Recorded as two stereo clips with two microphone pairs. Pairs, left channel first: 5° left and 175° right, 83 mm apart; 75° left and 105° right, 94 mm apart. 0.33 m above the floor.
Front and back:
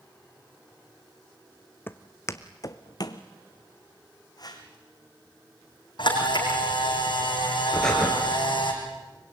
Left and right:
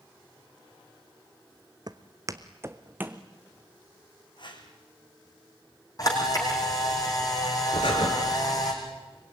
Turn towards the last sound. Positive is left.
turn(degrees=85)